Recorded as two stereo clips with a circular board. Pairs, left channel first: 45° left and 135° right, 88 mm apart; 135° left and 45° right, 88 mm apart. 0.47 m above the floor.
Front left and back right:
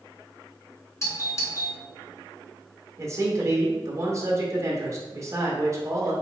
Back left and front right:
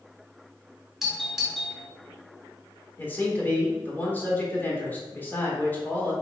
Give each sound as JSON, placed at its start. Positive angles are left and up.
{"t": 1.0, "sound": "a doorbell", "azimuth_deg": 40, "distance_m": 1.3}
{"t": 3.0, "sound": "a man speaking", "azimuth_deg": -165, "distance_m": 1.2}